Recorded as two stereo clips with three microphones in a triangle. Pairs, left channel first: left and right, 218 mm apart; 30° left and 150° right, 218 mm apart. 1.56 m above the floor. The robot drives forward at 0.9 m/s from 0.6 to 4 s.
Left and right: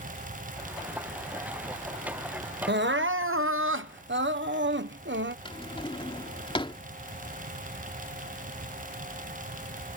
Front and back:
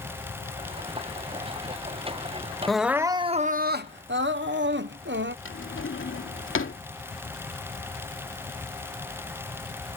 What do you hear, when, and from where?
2.7 s crying: 60° right; by 5.3 s 120° right
5.5 s a drawer: 25° left